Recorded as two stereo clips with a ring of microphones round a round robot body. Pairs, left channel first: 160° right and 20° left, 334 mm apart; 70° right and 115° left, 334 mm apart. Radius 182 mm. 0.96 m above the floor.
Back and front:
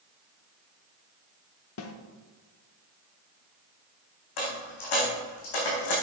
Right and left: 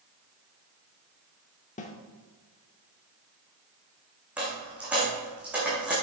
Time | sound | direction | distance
1.8 | a snare drum | 130° right | 0.7 m
4.4 | a dropped coin | 160° right | 4 m